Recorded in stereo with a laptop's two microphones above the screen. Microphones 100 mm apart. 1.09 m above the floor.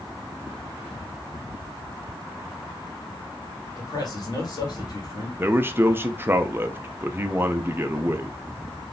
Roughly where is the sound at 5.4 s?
Right.